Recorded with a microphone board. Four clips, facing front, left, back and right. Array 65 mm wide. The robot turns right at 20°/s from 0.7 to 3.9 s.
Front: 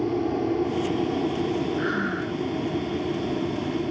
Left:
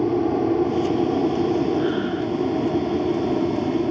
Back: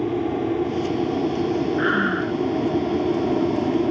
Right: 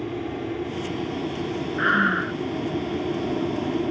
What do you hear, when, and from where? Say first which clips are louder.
0.0 s an aircraft: left 9 dB, back 2 dB; 95° left; by 3.9 s 160° left
1.8 s breathing: right 1 dB, back 5 dB; 120° right; by 2.4 s 105° right